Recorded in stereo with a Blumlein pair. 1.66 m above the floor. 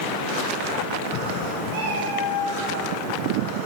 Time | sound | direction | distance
1.7 | a cat meowing | 50° right | 6.5 m